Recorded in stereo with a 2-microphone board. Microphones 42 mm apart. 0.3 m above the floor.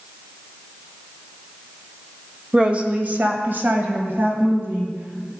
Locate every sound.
2.5 s a woman speaking: 25° right (ahead or behind), 1.1 m; by 5.3 s 55° right (ahead or behind), 2.5 m